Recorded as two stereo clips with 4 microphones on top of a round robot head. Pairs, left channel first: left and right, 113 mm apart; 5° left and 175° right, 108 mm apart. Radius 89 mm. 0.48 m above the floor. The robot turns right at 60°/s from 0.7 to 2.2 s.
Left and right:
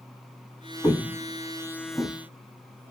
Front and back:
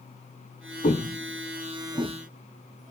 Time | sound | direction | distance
0.8 | footsteps | 20° left | 0.6 m